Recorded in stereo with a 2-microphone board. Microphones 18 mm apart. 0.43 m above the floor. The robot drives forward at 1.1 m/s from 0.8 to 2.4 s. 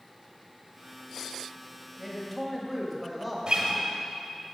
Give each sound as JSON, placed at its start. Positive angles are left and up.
{"t": 2.0, "sound": "a man speaking", "side_deg": 0, "distance_m": 2.0}
{"t": 3.5, "sound": "a guitar", "side_deg": -45, "distance_m": 1.2}